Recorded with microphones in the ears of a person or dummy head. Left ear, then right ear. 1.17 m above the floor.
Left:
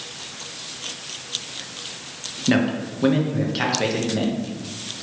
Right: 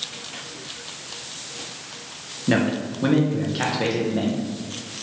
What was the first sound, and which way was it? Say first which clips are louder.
A man speaking: even; 10° left (ahead or behind).